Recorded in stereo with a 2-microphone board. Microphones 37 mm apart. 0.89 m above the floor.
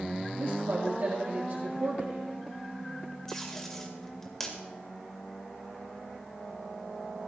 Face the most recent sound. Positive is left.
turn(degrees=10)  # may be behind; listen again after turning